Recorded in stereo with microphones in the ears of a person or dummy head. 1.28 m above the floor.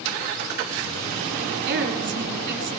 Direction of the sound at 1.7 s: 55° right (ahead or behind).